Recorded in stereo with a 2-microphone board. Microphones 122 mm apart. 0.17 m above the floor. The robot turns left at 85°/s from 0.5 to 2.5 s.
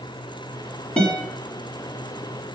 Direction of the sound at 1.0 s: 10° left (ahead or behind).